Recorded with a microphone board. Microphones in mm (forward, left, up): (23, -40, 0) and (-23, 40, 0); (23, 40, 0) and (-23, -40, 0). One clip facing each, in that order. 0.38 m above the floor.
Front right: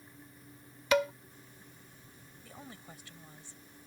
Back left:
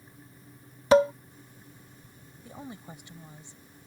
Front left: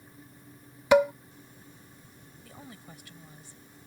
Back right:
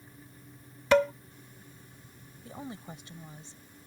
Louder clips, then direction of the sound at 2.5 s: Back left 7 dB, back right 7 dB; 175° right.